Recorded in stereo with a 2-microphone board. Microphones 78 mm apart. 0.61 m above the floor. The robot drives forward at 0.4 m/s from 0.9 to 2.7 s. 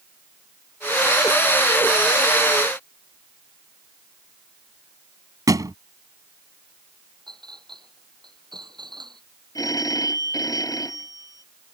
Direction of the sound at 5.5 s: 50° right (ahead or behind).